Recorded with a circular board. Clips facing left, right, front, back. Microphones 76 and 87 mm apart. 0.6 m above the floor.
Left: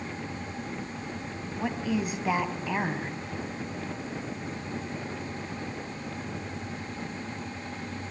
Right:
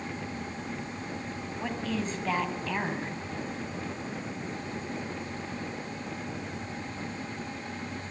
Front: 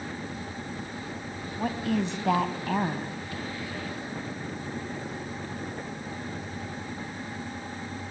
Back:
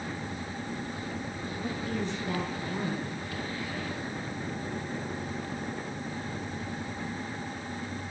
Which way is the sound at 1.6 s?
10° left.